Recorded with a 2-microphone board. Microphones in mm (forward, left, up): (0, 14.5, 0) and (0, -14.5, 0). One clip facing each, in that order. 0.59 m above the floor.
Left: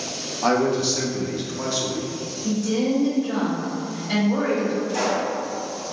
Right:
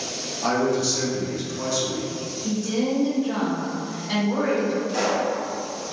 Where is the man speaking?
25° left (ahead or behind), 0.6 m.